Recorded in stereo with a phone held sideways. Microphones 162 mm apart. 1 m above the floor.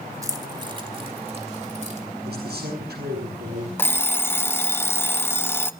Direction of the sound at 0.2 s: 20° right (ahead or behind).